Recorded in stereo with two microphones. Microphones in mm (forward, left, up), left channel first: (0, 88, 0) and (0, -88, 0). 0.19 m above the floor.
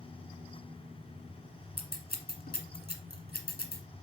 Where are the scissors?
60° left (ahead or behind), 1.3 m.